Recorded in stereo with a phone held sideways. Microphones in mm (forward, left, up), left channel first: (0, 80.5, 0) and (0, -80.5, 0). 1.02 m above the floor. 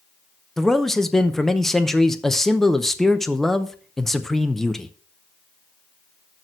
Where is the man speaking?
5° left (ahead or behind), 0.7 m.